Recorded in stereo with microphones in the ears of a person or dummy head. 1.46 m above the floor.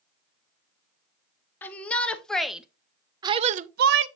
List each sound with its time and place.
1.6 s a shout: 10° left (ahead or behind), 1.2 m; by 4.1 s 70° right (ahead or behind), 0.5 m